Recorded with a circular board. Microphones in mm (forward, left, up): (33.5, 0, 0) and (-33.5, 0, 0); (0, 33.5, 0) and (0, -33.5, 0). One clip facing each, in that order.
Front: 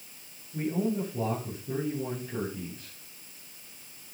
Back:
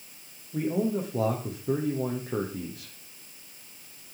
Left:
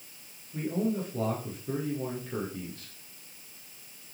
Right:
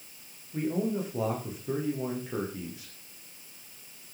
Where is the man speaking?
170° right, 8 m.